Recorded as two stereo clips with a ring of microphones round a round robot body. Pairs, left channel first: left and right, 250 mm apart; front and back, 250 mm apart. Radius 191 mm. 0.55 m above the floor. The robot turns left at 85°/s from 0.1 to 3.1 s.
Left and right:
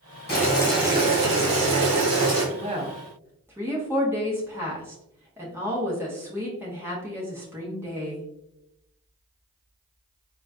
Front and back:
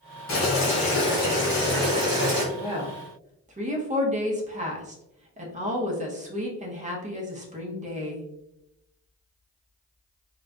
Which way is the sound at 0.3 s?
40° left.